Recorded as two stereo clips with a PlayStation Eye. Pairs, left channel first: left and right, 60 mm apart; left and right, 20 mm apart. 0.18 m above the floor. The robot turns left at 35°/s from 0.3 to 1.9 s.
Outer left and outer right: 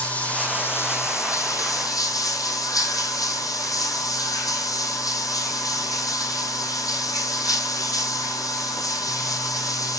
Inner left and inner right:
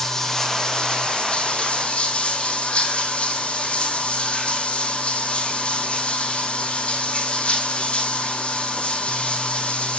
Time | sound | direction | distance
0.0 | running water | 155° left | 2 m